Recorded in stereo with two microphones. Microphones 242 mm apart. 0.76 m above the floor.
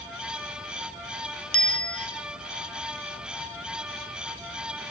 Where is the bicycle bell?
70° left (ahead or behind), 2.5 m.